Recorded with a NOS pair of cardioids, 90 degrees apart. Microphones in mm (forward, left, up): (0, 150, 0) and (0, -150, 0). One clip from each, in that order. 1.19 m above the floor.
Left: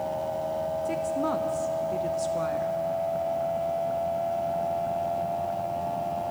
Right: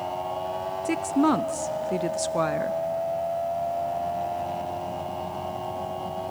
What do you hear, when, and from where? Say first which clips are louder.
0.8 s a woman speaking: right 8 dB; 40° right, 0.6 m